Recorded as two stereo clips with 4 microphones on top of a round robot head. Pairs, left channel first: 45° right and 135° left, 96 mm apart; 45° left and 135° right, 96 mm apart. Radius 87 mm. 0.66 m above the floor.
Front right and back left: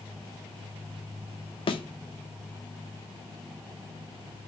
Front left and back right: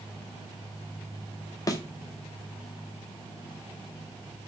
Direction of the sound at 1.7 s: 10° right.